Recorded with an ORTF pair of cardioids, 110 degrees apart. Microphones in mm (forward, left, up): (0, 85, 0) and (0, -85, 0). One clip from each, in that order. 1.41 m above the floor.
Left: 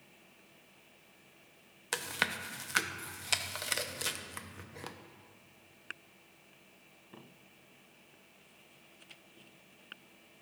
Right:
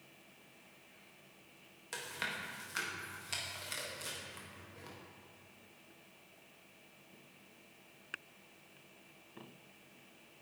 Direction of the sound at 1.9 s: 50° left.